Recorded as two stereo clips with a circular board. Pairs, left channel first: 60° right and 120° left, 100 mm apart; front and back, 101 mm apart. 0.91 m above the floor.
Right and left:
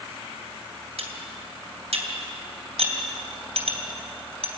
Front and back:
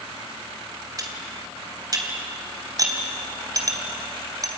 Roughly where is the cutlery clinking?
Behind left.